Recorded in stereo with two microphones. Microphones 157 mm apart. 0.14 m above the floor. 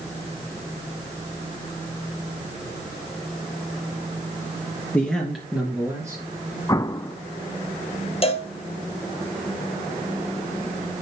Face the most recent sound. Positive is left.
turn(degrees=40)  # may be behind; listen again after turning